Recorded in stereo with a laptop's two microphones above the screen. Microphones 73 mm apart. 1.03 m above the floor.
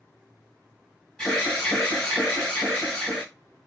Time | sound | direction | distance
1.2 | an alarm | 10° left (ahead or behind) | 2.5 m